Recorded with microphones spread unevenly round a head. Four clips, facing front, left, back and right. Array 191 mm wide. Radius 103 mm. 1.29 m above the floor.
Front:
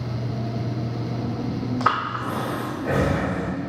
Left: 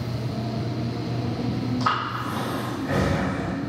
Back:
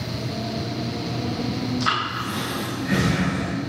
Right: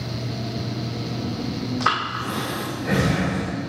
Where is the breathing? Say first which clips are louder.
Right 4 dB, front 2 dB; 40° right, 2.5 m.